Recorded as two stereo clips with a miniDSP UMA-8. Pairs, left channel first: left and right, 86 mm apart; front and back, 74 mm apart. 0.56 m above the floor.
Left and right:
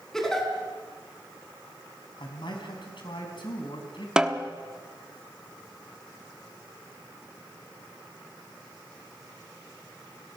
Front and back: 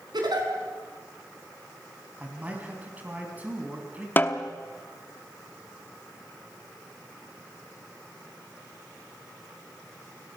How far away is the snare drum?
About 1.1 m.